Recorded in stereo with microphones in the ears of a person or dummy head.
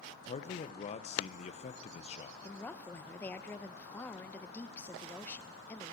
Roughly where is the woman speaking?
Centre.